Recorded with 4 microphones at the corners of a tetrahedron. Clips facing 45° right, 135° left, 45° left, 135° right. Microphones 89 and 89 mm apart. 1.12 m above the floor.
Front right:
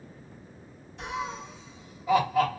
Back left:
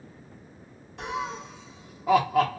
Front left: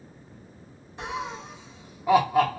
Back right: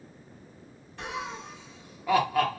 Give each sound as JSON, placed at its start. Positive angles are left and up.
{"t": 1.0, "sound": "laughter", "azimuth_deg": 115, "distance_m": 0.8}